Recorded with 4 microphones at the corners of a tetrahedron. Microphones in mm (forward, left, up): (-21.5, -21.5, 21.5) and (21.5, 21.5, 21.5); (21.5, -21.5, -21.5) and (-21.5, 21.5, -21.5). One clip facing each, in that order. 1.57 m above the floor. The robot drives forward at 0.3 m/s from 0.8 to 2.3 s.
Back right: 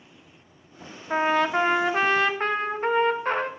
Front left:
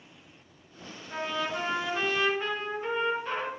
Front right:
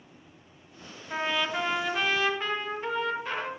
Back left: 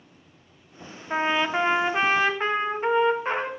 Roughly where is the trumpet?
Behind.